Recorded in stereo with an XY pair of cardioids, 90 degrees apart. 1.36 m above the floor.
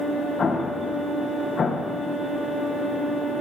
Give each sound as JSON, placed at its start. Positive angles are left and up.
{"t": 0.4, "sound": "an explosion", "azimuth_deg": 50, "distance_m": 1.1}